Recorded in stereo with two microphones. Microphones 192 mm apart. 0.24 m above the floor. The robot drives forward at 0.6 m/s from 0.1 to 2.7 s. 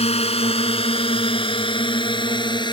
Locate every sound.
0.0 s a drone: 30° left (ahead or behind); by 2.7 s 25° left (ahead or behind)